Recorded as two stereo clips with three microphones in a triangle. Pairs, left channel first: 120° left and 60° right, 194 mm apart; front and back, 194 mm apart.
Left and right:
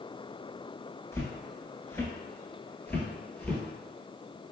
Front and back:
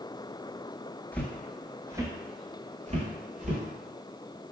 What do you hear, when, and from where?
1.1 s footsteps: 65° left, 0.9 m; by 3.6 s 160° right, 1.3 m